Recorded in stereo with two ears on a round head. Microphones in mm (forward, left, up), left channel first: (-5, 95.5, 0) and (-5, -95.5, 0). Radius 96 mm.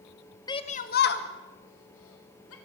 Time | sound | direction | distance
0.5 | a shout | 20° left (ahead or behind) | 0.9 m